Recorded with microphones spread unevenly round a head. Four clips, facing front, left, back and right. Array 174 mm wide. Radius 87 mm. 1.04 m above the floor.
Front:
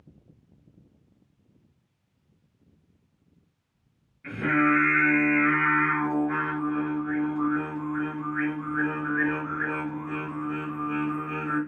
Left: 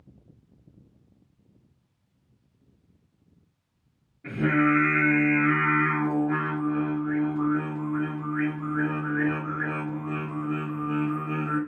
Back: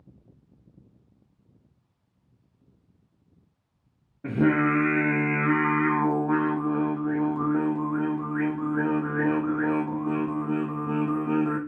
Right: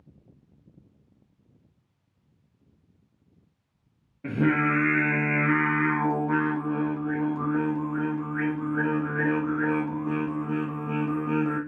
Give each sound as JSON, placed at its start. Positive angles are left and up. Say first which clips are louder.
{"t": 4.2, "sound": "singing", "louder": "left 1 dB, back 2 dB", "azimuth_deg": -150, "distance_m": 0.5}